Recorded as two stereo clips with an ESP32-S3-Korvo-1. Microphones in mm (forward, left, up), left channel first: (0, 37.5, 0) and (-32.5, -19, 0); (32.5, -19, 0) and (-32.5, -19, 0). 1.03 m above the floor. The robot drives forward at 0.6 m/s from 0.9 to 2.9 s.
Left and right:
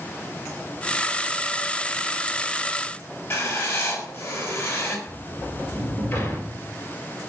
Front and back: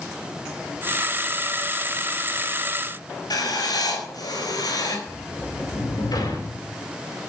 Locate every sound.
3.3 s writing: 10° left, 4.5 m
5.1 s a sliding door: 5° left, 3.5 m